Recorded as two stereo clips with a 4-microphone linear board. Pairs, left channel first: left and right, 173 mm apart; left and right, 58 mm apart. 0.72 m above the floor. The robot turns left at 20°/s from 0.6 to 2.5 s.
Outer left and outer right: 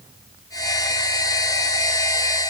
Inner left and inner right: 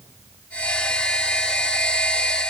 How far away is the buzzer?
I don't hear a buzzer.